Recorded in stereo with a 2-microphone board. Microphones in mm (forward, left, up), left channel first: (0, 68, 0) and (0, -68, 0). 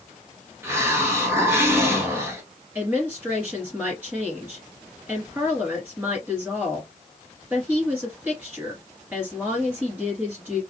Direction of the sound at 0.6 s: 15° right (ahead or behind).